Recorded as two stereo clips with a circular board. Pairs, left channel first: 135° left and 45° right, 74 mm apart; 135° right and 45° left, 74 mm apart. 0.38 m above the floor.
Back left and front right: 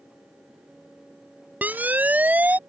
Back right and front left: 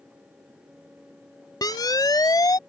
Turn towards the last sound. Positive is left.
turn(degrees=-110)